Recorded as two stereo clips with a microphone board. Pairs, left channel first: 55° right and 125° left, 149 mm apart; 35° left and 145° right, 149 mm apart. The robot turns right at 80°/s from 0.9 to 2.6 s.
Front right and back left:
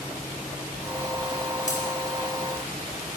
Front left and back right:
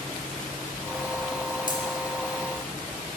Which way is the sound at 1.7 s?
90° right.